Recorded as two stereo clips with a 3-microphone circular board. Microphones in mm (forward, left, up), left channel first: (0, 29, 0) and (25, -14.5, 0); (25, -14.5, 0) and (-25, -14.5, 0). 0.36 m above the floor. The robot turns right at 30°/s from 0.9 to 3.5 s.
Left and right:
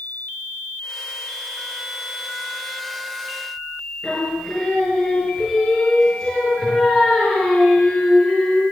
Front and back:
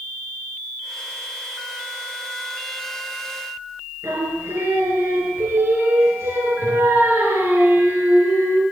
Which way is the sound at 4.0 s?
175° right.